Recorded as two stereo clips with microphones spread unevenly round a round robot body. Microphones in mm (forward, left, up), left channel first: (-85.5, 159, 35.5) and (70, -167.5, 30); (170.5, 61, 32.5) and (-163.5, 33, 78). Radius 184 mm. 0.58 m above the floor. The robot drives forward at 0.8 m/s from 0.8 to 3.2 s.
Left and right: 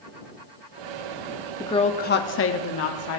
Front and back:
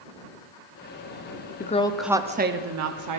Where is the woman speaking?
40° left, 0.9 m; by 3.2 s 160° left, 1.2 m.